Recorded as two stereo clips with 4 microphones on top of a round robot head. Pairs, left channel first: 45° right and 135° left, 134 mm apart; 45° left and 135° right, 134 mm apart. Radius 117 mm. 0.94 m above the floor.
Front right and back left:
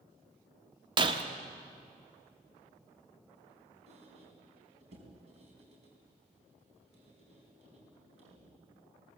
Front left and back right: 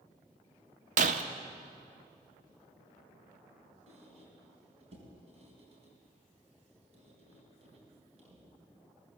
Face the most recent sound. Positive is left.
turn(degrees=180)